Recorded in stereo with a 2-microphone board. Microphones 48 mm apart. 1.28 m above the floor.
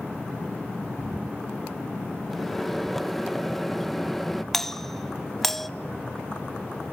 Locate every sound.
2.3 s a microwave: 5° left (ahead or behind), 0.8 m
4.5 s a doorbell: 5° left (ahead or behind), 0.6 m